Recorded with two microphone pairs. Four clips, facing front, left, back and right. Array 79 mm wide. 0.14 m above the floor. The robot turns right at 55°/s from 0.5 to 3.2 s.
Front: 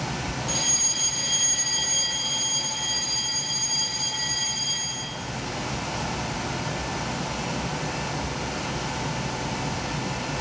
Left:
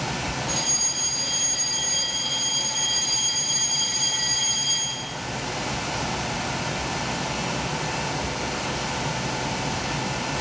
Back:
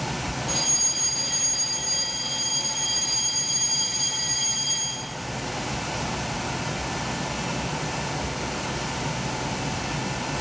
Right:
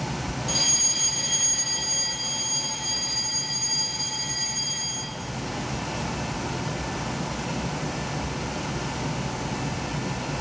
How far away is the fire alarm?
About 6 m.